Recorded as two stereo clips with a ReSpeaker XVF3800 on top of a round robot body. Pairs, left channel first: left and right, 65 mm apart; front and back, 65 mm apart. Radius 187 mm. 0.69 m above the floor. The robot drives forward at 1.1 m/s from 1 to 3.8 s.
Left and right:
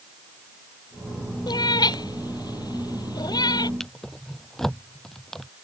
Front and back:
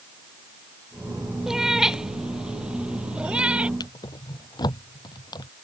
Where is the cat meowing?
95° left; by 3.7 s 105° left.